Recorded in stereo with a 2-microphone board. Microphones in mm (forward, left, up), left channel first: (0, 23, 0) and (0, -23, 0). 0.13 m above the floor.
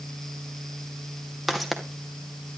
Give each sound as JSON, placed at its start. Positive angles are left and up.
{"t": 1.5, "sound": "footsteps", "side_deg": 0, "distance_m": 3.0}